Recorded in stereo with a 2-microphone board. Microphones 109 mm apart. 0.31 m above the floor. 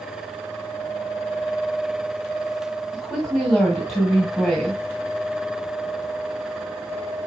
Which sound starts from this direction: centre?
A woman speaking, at 2.9 s.